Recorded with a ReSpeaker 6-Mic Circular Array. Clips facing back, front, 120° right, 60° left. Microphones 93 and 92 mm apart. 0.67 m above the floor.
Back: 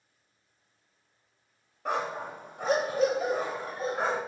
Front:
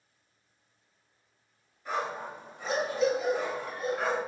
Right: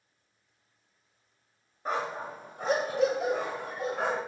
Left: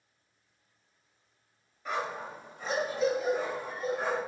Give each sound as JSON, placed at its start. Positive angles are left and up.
{"t": 1.9, "sound": "a dog barking", "azimuth_deg": -170, "distance_m": 1.4}